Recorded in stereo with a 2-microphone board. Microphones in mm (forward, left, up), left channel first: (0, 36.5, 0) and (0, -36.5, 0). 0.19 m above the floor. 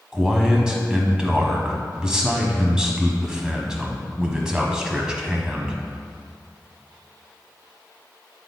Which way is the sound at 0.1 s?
10° right (ahead or behind).